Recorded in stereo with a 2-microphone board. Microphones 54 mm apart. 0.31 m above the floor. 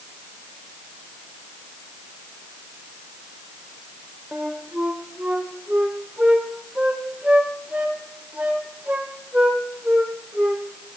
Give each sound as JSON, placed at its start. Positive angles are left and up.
{"t": 4.3, "sound": "a flute", "side_deg": -25, "distance_m": 1.6}